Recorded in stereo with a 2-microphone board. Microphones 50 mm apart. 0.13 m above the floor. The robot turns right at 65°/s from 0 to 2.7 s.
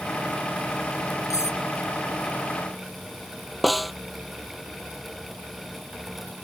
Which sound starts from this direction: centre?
A snare drum, at 3.6 s.